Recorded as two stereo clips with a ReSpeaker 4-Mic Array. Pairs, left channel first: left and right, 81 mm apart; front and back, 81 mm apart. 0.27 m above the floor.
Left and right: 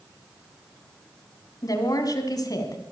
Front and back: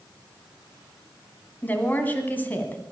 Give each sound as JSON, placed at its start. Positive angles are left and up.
{"t": 1.6, "sound": "a woman speaking", "azimuth_deg": 65, "distance_m": 2.0}